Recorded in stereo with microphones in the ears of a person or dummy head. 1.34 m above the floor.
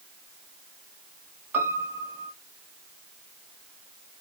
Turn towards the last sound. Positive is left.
turn(degrees=-15)  # may be behind; listen again after turning